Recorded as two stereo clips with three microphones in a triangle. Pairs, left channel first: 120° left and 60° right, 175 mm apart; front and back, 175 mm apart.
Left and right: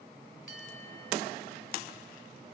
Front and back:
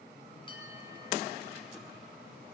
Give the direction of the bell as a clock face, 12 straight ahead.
2 o'clock.